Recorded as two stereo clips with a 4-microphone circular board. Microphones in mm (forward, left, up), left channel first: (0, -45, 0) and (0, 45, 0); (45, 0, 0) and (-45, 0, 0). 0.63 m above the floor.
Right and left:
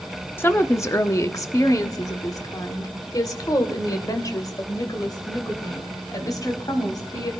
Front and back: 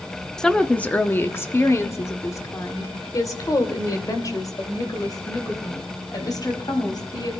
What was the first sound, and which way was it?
A woman speaking, 75° right.